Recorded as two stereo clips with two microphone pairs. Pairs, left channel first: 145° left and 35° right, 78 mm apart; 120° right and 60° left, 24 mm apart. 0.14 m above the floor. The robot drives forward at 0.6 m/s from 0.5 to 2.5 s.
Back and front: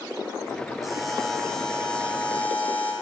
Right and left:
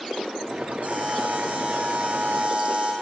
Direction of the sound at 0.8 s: 55° left.